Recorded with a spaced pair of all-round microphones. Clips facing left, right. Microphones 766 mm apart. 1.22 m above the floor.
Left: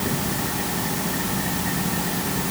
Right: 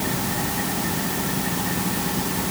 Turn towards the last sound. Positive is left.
No sound to turn to.